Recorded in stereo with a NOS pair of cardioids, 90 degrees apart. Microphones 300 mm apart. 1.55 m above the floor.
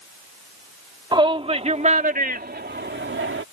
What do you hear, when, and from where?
1.1 s a shout: 15° right; by 3.4 s 40° right